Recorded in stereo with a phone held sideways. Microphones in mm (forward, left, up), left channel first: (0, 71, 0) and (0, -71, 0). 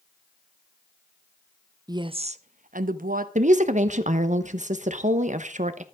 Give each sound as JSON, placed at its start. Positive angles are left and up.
{"t": 1.9, "sound": "a woman speaking", "side_deg": -25, "distance_m": 0.5}
{"t": 3.4, "sound": "a woman speaking", "side_deg": -60, "distance_m": 0.9}